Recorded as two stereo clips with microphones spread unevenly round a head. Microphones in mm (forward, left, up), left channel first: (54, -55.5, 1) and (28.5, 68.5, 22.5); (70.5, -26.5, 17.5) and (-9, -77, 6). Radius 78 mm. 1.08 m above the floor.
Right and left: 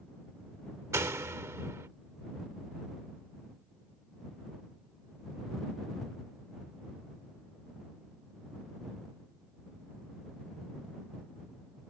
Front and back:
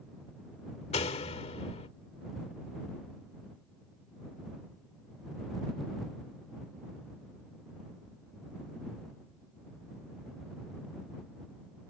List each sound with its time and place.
0.9 s a door slam: 35° left